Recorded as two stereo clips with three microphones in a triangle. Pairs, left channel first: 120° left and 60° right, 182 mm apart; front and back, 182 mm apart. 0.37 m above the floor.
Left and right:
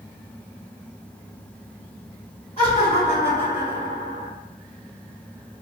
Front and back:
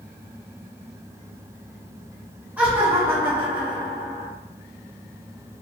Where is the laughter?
105° left, 1.2 m; by 4.3 s 155° left, 1.6 m.